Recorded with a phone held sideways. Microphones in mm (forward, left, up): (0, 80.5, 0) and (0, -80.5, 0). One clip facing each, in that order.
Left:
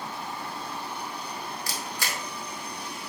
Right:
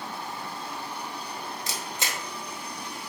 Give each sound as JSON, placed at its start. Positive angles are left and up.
{"t": 1.7, "sound": "a camera shutter", "side_deg": -20, "distance_m": 0.7}